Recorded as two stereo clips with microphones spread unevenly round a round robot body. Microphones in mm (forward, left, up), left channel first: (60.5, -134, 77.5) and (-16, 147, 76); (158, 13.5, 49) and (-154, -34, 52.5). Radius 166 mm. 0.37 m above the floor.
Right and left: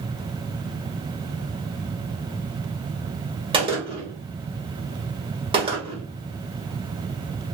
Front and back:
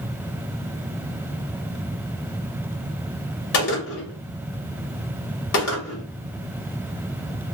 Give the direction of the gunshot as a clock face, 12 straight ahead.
11 o'clock.